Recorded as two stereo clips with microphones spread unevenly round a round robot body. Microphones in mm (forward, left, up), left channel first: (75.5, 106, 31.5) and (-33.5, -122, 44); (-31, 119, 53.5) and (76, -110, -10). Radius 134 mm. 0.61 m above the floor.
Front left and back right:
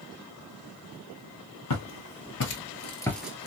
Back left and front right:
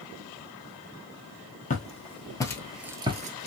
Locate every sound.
1.7 s footsteps: 70° left, 1.0 m; by 3.5 s 85° right, 0.6 m